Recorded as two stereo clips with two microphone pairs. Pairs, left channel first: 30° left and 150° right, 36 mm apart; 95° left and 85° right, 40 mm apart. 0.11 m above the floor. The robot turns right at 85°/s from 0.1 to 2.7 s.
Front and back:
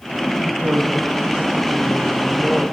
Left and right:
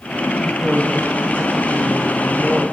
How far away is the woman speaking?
About 8.5 m.